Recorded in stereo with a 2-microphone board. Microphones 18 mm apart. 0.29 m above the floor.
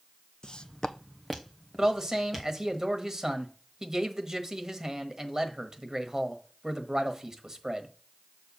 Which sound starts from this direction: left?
Footsteps, at 0.4 s.